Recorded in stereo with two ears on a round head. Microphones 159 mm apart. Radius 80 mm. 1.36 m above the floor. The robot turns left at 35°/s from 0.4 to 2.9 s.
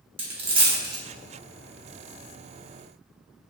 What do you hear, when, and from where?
0.2 s a dropped coin: 35° right (ahead or behind), 1.0 m; by 1.0 s 20° right (ahead or behind), 1.0 m